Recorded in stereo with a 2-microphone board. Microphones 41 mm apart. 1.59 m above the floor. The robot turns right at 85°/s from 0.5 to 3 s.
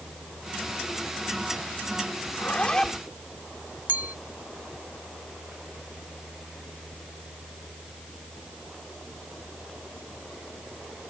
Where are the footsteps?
No footsteps in this recording.